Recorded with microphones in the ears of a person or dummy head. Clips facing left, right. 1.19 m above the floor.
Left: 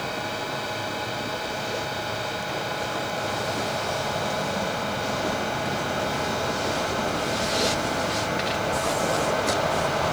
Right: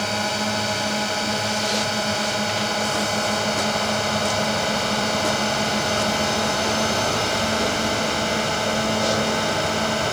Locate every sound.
0.0 s a drone: 60° right (ahead or behind); by 10.1 s 50° right (ahead or behind)